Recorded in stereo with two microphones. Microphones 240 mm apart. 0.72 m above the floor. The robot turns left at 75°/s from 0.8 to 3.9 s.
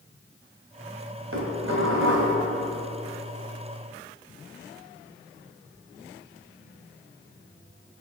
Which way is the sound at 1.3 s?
65° right.